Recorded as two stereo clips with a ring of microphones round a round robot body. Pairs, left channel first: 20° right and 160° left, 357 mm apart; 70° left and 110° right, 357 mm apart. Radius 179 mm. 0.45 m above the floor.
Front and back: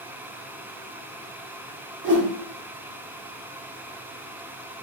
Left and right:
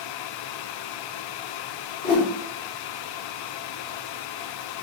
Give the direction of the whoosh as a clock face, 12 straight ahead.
8 o'clock.